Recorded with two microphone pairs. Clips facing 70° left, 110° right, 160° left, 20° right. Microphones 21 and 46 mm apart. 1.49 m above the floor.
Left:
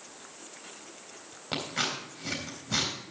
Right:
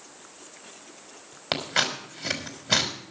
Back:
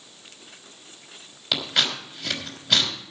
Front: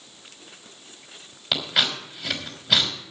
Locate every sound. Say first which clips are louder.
1.5 s scissors: right 6 dB, front 1 dB; 105° right, 3 m